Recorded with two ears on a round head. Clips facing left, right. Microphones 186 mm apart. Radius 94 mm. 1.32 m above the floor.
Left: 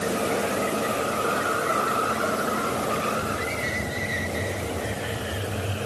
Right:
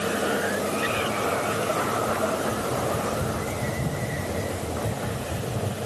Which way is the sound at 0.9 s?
55° right (ahead or behind).